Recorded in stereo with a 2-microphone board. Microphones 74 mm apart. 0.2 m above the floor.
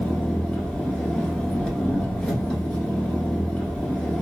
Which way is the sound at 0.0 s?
15° left (ahead or behind).